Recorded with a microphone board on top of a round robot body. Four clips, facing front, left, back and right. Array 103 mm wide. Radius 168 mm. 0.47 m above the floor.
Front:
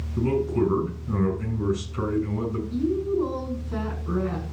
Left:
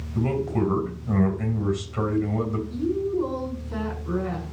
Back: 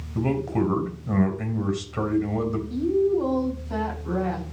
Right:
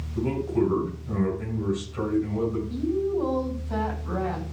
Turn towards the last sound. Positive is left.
turn(degrees=-145)